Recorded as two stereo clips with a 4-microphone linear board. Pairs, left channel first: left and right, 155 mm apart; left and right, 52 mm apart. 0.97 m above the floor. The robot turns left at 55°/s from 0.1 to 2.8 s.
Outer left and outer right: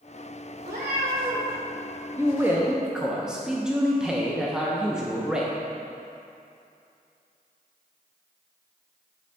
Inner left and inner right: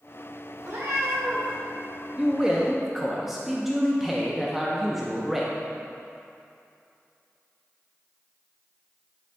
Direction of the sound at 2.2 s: 20° right (ahead or behind).